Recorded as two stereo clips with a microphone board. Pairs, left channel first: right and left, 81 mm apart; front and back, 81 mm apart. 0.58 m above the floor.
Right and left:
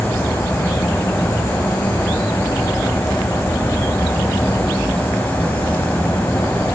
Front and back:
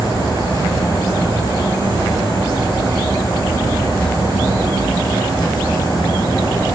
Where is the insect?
20° right, 4 m.